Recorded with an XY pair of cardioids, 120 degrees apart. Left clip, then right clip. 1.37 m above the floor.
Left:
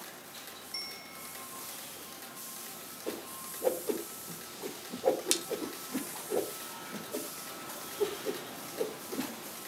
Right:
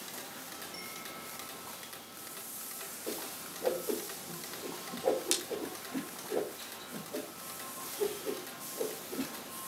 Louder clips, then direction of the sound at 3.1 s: Left 1 dB; 20° left.